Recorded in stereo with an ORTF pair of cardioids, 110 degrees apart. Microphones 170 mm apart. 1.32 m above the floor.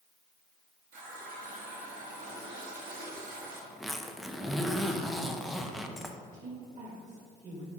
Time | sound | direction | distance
0.9 | a running tap | 60° right | 1.6 m
3.7 | a zipper | straight ahead | 0.5 m
6.3 | a woman speaking | 45° right | 1.9 m